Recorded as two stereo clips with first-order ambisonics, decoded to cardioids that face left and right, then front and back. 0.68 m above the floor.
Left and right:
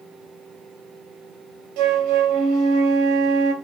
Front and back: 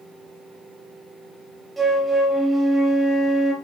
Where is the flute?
100° right, 2.5 m.